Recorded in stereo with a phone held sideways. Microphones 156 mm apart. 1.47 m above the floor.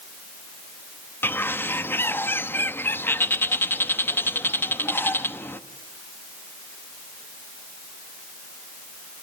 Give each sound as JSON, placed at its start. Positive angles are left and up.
{"t": 1.2, "sound": "a bird", "side_deg": 15, "distance_m": 0.9}